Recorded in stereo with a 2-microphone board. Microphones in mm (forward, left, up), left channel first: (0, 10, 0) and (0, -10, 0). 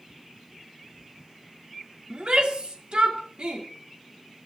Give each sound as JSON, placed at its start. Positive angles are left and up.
{"t": 2.1, "sound": "a shout", "side_deg": -65, "distance_m": 3.0}